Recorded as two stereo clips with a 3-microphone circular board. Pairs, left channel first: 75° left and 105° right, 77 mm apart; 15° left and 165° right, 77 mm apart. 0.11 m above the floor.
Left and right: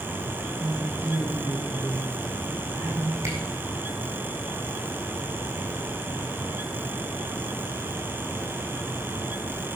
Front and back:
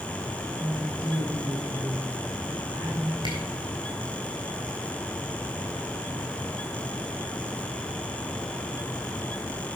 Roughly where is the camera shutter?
Behind right.